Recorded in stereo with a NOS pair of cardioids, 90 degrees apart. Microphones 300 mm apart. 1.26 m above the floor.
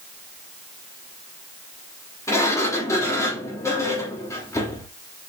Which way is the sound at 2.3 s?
10° left.